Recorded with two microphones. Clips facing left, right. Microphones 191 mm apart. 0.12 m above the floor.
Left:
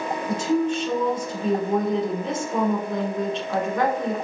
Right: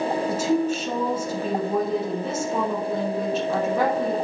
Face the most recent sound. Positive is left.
turn(degrees=-10)  # may be behind; listen again after turning